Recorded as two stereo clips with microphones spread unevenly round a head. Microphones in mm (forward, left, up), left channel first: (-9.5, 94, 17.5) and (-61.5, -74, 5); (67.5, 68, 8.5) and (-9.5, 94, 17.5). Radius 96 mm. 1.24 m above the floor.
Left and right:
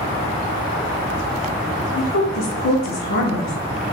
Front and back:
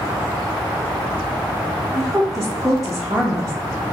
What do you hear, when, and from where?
1.9 s a woman speaking: 70° left, 0.8 m